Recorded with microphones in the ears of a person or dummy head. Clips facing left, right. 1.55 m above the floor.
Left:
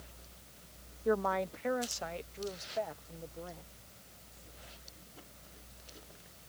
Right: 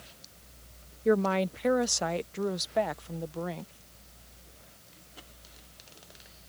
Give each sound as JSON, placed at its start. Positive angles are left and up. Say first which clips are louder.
{"t": 1.1, "sound": "a woman speaking", "louder": "right 6 dB", "side_deg": -30}